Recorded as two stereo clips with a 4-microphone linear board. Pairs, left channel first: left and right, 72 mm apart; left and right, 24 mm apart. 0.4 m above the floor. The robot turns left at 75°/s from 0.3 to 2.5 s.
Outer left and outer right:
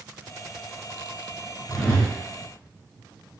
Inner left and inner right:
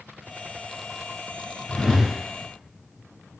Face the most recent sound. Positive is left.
turn(degrees=115)